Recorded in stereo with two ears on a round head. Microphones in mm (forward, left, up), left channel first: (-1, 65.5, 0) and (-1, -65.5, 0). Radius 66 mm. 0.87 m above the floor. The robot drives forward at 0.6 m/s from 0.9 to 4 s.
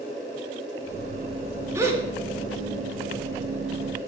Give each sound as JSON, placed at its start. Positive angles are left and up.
{"t": 1.8, "sound": "a gasp", "side_deg": -20, "distance_m": 2.0}